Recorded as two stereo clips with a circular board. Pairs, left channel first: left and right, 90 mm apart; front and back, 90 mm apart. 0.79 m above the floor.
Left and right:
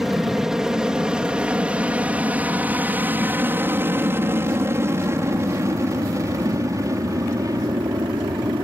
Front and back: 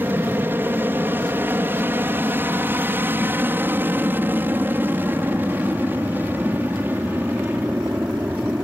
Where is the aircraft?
170° right; by 8.6 s 115° right.